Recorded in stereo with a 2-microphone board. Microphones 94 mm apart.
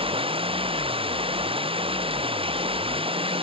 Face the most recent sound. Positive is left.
turn(degrees=-70)  # may be behind; listen again after turning